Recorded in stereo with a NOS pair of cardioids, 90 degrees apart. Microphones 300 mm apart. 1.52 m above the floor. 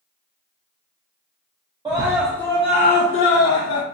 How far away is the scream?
About 0.8 m.